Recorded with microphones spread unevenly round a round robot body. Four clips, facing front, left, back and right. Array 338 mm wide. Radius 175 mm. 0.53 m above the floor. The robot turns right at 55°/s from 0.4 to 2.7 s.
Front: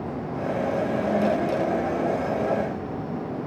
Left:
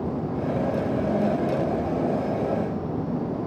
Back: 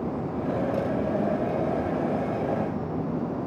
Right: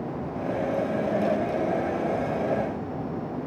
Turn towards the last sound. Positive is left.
No sound to turn to.